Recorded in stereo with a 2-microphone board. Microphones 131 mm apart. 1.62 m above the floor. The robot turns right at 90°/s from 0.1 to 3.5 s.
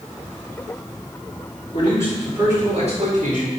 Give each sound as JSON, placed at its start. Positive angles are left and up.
{"t": 1.7, "sound": "a man speaking", "azimuth_deg": 130, "distance_m": 4.5}